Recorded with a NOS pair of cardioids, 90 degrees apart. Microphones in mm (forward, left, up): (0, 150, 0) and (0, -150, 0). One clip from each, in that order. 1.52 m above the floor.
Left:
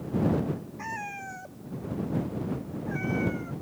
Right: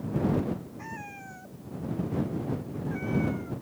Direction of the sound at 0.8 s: 45° left.